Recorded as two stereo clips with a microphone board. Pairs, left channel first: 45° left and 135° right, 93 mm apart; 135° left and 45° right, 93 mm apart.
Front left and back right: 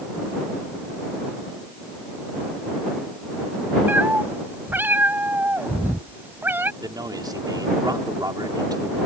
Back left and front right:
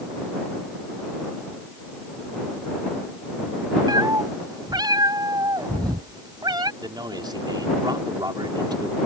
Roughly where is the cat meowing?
Right.